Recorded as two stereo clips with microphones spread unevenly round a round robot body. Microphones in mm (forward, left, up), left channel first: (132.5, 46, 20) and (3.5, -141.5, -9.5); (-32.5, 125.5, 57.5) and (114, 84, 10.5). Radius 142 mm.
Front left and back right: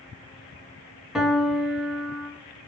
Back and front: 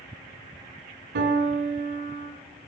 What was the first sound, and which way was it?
A piano, 35° right.